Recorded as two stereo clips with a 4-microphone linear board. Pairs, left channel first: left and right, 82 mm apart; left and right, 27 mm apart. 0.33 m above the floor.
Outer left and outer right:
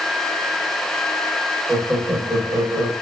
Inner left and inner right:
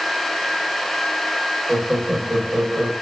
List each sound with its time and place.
1.7 s laughter: 30° right (ahead or behind), 1.0 m